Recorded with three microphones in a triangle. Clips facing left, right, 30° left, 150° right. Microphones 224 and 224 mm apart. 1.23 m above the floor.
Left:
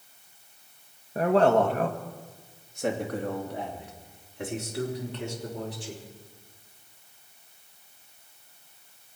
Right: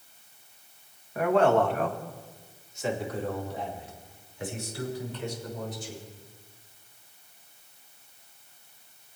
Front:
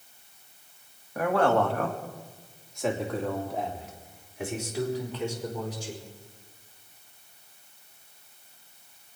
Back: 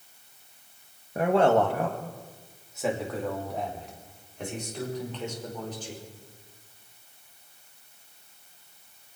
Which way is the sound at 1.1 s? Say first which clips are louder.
Left 1 dB, back 2 dB; 150° left.